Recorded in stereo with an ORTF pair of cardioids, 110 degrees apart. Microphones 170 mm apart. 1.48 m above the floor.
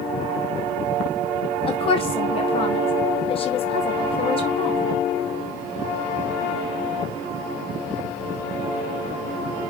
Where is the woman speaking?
35° left, 0.9 m.